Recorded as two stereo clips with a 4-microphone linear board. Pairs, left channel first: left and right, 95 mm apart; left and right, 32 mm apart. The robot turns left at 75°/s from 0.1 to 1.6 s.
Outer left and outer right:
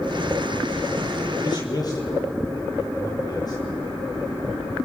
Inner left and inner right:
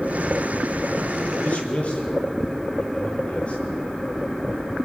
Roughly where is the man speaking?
Left.